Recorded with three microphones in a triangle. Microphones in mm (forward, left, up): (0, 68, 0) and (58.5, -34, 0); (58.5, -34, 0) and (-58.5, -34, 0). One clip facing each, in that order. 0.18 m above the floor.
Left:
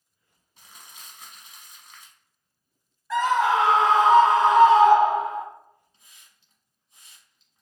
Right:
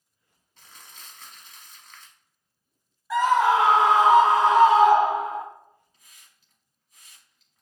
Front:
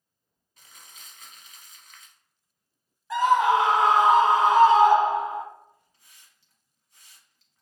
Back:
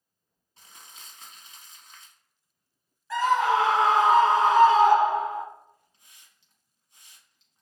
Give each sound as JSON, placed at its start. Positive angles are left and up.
{"t": 0.6, "sound": "crumpling", "azimuth_deg": -175, "distance_m": 0.7}
{"t": 3.1, "sound": "a scream", "azimuth_deg": 0, "distance_m": 1.0}
{"t": 5.9, "sound": "a hiss", "azimuth_deg": 140, "distance_m": 0.9}